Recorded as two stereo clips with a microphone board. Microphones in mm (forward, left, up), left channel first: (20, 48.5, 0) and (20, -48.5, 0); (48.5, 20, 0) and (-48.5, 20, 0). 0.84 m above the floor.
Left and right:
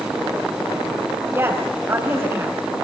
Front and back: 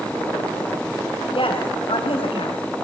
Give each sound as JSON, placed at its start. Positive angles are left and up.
{"t": 1.3, "sound": "a woman speaking", "azimuth_deg": -30, "distance_m": 4.0}